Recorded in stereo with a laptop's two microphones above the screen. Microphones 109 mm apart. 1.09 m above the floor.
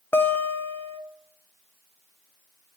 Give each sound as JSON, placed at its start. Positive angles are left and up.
{"t": 0.1, "sound": "a guitar", "side_deg": 15, "distance_m": 0.6}